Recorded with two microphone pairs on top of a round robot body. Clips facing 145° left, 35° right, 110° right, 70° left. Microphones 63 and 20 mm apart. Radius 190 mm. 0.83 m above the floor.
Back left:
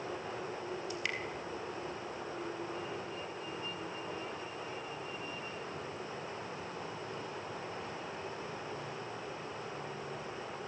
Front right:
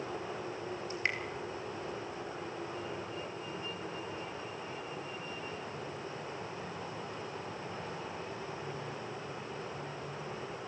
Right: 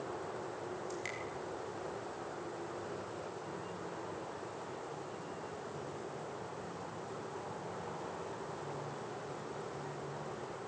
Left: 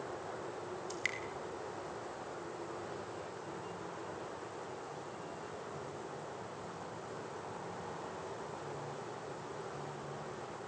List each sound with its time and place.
0.9 s dripping: 20° left, 3.5 m